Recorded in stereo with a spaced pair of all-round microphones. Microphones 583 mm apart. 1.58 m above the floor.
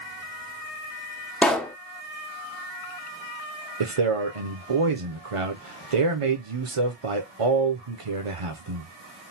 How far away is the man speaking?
About 0.9 m.